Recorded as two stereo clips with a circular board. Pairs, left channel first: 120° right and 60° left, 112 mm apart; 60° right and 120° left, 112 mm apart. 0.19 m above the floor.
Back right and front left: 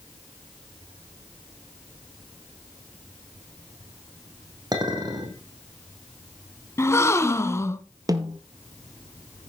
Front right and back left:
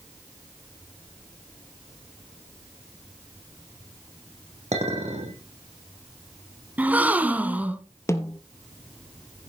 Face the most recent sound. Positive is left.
turn(degrees=5)